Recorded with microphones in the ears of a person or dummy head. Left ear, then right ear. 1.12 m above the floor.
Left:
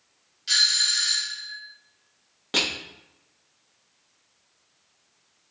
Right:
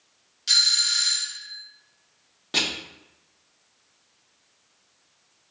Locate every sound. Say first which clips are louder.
0.5 s a doorbell: right 1 dB; 10° right (ahead or behind), 0.6 m
2.5 s crushing: even; 20° left (ahead or behind), 1.1 m